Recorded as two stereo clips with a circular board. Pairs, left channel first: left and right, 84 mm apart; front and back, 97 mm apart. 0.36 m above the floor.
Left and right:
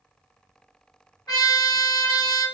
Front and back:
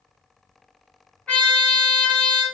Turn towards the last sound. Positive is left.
turn(degrees=75)